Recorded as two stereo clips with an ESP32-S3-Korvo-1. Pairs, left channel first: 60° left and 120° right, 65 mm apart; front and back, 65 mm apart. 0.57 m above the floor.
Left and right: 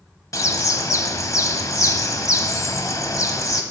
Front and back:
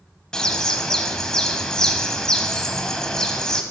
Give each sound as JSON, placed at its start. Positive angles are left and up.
{"t": 0.3, "sound": "a bird", "azimuth_deg": 80, "distance_m": 0.9}